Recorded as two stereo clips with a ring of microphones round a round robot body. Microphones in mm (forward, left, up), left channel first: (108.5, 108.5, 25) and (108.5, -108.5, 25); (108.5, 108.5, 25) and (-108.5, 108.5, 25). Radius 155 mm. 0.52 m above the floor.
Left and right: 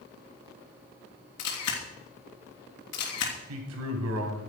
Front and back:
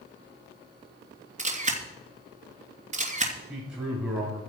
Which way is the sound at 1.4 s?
120° left.